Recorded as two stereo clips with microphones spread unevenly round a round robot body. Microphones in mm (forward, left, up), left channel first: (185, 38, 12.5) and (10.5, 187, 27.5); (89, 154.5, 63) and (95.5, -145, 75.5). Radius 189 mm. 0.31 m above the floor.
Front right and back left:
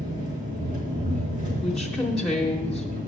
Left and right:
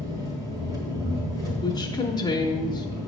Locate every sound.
0.0 s an engine running: 165° right, 1.7 m
1.6 s a woman speaking: 35° left, 0.9 m